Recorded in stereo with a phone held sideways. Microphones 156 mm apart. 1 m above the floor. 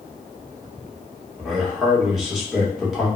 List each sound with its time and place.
1.4 s a man speaking: 5° right (ahead or behind), 1.0 m